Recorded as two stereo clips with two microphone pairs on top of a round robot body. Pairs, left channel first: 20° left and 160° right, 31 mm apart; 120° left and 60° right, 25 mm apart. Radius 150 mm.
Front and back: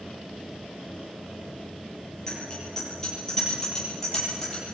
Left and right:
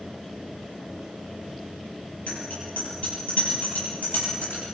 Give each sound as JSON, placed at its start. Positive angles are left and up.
{"t": 2.3, "sound": "a bicycle bell", "azimuth_deg": 95, "distance_m": 10.0}